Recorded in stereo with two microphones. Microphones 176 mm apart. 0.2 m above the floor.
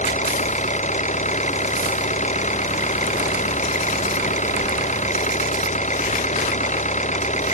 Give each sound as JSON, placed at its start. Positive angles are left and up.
{"t": 0.0, "sound": "an engine running", "side_deg": 45}